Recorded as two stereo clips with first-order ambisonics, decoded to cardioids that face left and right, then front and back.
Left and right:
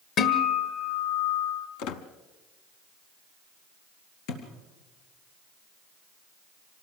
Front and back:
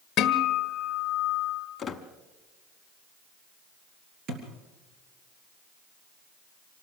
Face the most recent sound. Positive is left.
turn(degrees=125)